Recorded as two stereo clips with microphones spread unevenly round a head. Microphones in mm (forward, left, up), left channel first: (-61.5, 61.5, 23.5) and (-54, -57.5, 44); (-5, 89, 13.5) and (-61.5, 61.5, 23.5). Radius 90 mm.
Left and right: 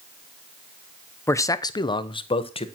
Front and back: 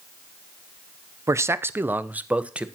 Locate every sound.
1.3 s a man speaking: 165° left, 0.7 m; by 2.7 s 135° left, 1.3 m